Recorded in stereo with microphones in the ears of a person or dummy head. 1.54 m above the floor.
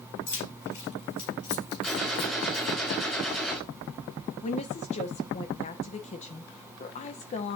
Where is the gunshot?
Centre (ahead or behind), 5.5 m.